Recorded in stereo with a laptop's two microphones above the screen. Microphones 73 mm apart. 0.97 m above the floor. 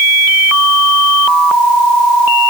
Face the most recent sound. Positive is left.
No sound to turn to.